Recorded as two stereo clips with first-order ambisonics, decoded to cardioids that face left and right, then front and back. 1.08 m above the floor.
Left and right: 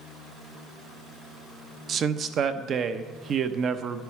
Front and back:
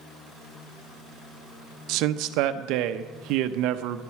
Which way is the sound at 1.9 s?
150° right.